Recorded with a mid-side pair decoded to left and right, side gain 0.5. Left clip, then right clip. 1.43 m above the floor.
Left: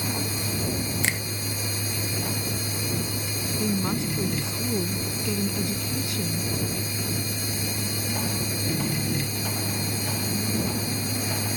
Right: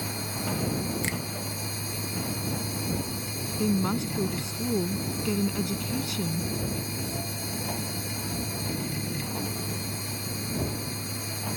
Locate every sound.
0.0 s a machine running: 30° left
1.0 s a finger snap: 45° left
3.6 s a woman speaking: 10° right